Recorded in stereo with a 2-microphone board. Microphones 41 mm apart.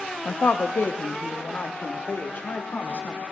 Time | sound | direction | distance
0.2 | a woman speaking | 40° left (ahead or behind) | 0.8 m